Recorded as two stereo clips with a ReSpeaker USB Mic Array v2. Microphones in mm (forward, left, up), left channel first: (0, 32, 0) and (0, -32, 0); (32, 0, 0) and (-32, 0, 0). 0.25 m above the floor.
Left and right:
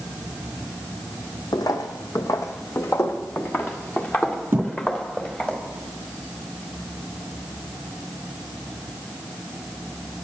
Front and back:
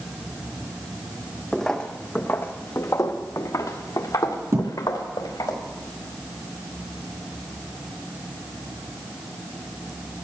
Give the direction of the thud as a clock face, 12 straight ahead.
5 o'clock.